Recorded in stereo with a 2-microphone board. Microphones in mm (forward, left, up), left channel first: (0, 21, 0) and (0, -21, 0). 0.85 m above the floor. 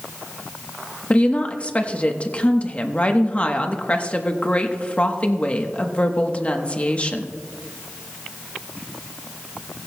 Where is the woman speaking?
35° left (ahead or behind), 1.0 m.